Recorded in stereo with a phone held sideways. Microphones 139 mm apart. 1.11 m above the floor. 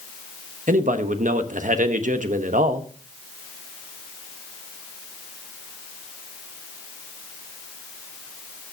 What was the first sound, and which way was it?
A man speaking, 65° right (ahead or behind).